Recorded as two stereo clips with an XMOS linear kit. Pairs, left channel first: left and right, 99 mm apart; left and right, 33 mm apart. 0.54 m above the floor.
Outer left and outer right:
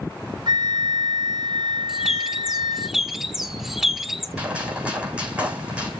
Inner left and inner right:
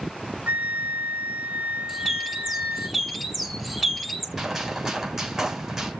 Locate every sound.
0.5 s a flute: 45° right (ahead or behind), 0.8 m
1.9 s a bird: 5° right (ahead or behind), 1.1 m
4.4 s a gunshot: 10° right (ahead or behind), 7 m